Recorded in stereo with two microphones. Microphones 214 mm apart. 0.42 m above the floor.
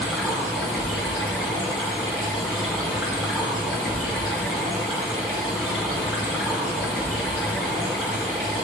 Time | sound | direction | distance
0.0 | running water | 5° left (ahead or behind) | 3 m